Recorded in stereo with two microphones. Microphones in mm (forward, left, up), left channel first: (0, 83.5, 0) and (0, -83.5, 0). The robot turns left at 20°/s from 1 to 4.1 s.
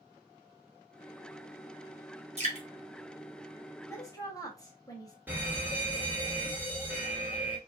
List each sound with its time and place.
2.4 s dripping: 40° right (ahead or behind), 1.0 m; by 2.7 s 45° right (ahead or behind), 1.0 m
3.9 s a woman speaking: 15° left (ahead or behind), 1.1 m; by 5.2 s 20° left (ahead or behind), 1.1 m
5.3 s a fire alarm: 10° right (ahead or behind), 1.2 m